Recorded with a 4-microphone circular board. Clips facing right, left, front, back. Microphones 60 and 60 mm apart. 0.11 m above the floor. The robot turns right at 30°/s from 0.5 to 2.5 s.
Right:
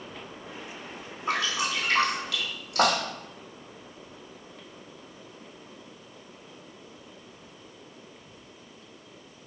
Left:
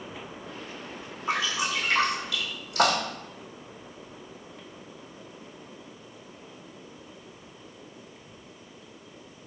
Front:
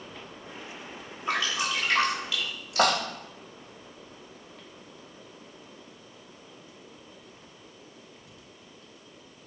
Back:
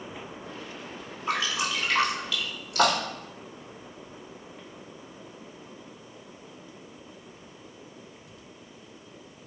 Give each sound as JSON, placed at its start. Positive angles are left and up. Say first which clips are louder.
{"t": 1.3, "sound": "dripping", "louder": "even, even", "azimuth_deg": -110, "distance_m": 1.4}